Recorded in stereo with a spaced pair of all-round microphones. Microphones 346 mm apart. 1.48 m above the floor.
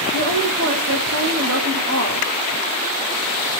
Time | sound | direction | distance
0.1 | a woman speaking | 50° right (ahead or behind) | 2.5 m